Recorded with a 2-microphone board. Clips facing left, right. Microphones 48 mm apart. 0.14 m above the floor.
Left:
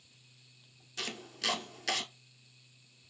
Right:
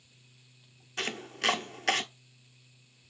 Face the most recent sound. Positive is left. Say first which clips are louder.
# right 6 dB
turn(degrees=-45)  # may be behind; listen again after turning